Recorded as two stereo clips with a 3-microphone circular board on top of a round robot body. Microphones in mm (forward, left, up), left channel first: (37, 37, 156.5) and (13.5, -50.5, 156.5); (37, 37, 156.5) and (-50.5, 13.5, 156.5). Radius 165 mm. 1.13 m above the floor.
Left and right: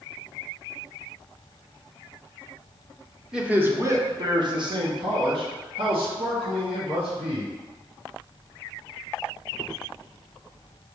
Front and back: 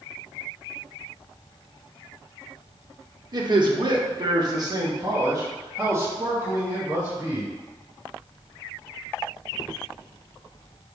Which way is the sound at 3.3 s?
175° left.